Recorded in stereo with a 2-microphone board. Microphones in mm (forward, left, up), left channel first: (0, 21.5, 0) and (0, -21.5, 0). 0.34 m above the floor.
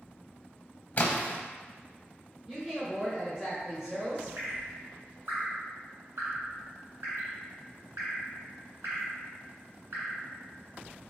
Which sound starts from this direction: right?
Dripping, at 4.4 s.